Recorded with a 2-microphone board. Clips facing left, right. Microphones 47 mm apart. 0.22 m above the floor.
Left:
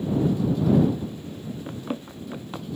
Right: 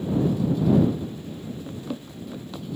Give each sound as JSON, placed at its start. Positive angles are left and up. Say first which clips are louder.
{"t": 1.7, "sound": "running footsteps", "louder": "left 2 dB", "side_deg": 40}